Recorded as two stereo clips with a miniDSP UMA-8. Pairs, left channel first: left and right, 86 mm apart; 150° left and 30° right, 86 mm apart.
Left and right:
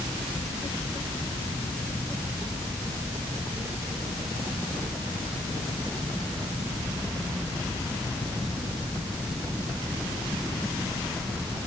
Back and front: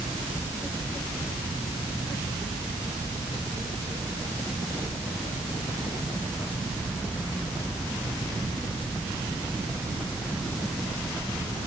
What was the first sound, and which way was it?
Only background noise.